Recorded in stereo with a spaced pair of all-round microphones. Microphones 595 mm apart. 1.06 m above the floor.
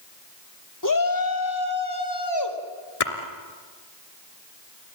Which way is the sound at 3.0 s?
70° left (ahead or behind).